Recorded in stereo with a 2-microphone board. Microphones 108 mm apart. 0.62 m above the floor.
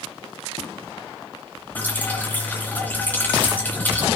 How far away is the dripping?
About 2.5 m.